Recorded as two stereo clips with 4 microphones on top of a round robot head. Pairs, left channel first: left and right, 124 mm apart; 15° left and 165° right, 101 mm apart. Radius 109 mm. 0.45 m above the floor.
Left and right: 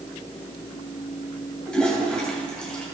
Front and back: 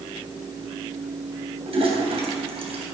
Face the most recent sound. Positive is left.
turn(degrees=175)